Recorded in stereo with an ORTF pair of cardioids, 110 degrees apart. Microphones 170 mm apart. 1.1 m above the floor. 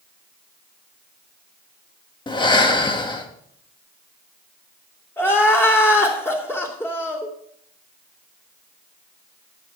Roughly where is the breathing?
Ahead left.